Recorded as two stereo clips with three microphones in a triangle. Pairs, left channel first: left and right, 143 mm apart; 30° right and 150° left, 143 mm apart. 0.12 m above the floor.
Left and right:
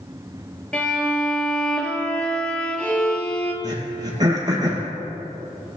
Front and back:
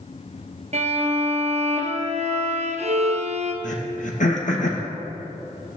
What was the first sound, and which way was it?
A violin, 170° left.